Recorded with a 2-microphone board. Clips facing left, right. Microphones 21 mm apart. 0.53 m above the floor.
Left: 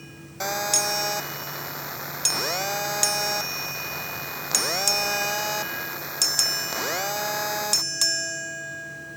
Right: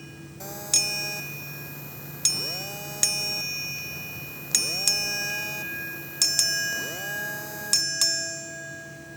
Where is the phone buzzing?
45° left (ahead or behind).